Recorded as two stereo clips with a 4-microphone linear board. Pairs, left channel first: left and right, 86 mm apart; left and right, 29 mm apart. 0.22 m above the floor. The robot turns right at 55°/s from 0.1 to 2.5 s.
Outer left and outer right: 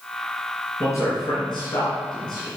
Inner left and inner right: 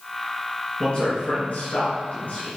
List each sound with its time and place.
0.8 s a man speaking: 30° left (ahead or behind), 3 m; by 2.5 s 45° left (ahead or behind), 3 m